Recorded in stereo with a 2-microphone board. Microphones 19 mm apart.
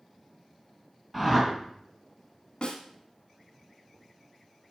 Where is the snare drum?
50° left (ahead or behind), 1.4 m.